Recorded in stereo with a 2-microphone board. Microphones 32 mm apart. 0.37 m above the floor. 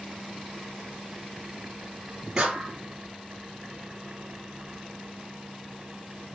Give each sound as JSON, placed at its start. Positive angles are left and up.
{"t": 2.4, "sound": "a clap", "side_deg": -25, "distance_m": 7.5}